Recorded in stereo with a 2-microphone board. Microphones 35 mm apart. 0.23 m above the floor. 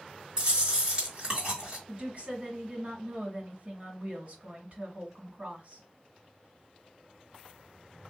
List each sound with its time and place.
0.4 s chewing: 25° right (ahead or behind), 2 m
1.9 s a woman speaking: 40° right (ahead or behind), 1.7 m